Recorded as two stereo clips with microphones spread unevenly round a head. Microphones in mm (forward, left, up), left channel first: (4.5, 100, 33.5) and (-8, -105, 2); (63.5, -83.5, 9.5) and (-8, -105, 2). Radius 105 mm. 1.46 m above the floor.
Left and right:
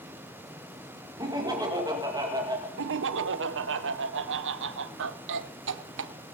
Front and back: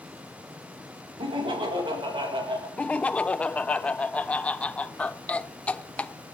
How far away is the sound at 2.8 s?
About 0.8 m.